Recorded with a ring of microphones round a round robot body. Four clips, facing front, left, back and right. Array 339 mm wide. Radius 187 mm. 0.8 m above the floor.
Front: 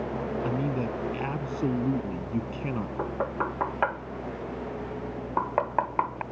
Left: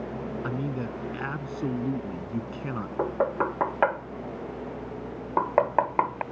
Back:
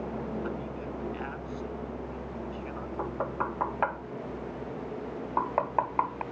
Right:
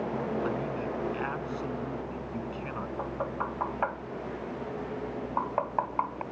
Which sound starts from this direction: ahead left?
A man speaking, at 0.4 s.